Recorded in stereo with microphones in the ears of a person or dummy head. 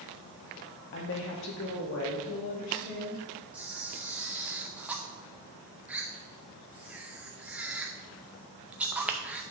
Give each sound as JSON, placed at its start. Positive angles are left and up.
{"t": 0.9, "sound": "a woman speaking", "side_deg": 55, "distance_m": 1.3}
{"t": 3.5, "sound": "a camera shutter", "side_deg": -5, "distance_m": 0.7}